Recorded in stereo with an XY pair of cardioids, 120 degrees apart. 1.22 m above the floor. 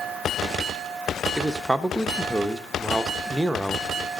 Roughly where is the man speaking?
Ahead.